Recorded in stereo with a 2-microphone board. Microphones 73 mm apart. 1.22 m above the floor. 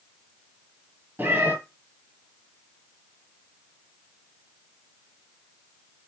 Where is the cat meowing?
30° right (ahead or behind), 1.9 m.